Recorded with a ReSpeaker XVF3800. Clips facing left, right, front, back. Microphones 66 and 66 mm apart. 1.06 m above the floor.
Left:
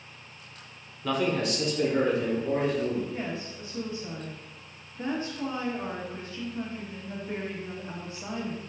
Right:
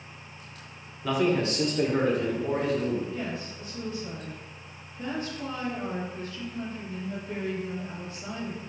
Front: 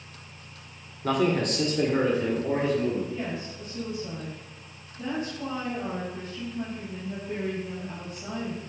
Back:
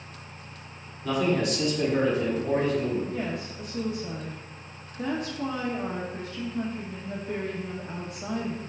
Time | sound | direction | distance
1.0 | a man speaking | 5° right | 0.6 m
3.1 | a woman speaking | 155° left | 0.8 m